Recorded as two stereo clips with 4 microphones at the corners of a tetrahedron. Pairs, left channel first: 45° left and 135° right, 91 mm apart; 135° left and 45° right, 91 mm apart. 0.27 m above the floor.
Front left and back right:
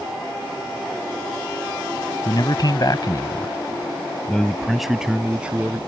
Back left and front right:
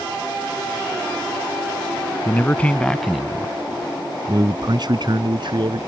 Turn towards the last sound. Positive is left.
turn(degrees=-60)